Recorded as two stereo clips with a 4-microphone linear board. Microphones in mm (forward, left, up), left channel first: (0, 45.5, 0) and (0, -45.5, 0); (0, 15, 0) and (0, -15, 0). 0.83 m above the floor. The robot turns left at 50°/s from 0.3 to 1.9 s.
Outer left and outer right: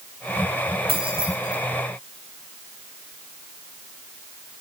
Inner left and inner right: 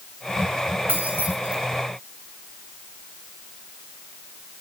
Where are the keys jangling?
90° right, 6.5 m; by 1.6 s 55° right (ahead or behind), 6.5 m.